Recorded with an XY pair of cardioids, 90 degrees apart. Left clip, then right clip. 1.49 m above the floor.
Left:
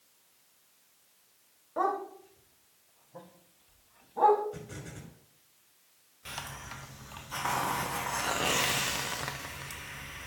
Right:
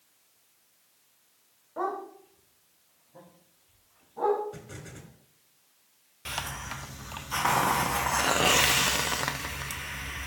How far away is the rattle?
I don't hear a rattle.